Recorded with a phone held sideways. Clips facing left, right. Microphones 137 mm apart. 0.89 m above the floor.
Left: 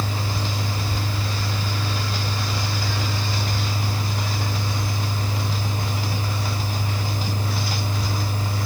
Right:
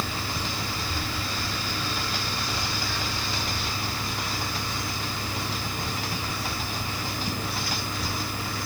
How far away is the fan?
About 0.7 m.